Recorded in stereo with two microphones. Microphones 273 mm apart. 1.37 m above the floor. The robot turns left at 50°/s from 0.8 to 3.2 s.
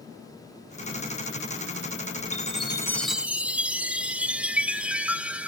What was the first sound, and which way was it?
A chime, 40° left.